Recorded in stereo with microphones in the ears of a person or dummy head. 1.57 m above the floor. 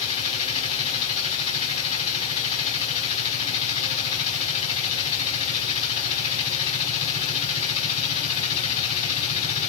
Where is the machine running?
35° left (ahead or behind), 5 m.